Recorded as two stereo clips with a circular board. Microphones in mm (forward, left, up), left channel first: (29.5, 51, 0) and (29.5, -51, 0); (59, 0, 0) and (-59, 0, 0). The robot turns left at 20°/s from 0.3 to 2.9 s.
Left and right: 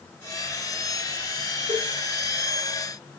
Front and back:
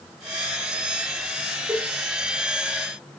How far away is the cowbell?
About 6 m.